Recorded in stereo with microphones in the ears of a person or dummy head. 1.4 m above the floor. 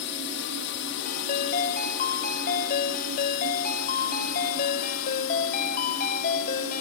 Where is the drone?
60° left (ahead or behind); by 6.8 s 65° left (ahead or behind).